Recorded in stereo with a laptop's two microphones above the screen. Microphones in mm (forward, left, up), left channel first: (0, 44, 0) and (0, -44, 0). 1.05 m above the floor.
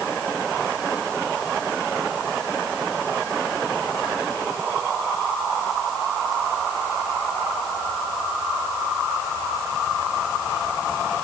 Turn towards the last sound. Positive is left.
No sound to turn to.